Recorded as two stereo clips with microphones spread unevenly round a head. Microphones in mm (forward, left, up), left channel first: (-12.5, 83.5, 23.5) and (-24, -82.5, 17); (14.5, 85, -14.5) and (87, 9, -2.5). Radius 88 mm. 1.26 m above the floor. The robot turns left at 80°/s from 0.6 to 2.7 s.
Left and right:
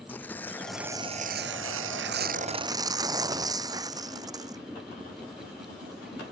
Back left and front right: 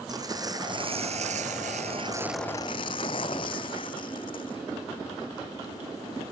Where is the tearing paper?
5° left; by 4.6 s 160° right.